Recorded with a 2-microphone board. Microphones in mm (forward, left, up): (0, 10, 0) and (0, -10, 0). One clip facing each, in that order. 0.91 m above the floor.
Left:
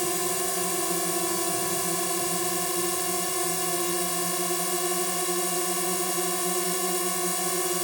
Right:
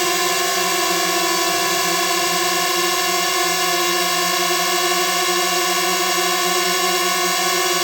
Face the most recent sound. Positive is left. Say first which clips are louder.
# right 10 dB
turn(degrees=-60)  # may be behind; listen again after turning